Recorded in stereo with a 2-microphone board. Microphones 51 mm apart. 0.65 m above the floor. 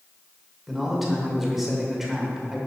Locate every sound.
0.7 s a man speaking: centre (ahead or behind), 1.9 m